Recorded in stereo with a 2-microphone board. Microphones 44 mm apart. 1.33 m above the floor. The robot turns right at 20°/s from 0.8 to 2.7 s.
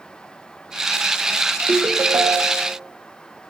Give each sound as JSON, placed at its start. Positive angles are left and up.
{"t": 1.7, "sound": "a ringtone", "side_deg": -55, "distance_m": 0.7}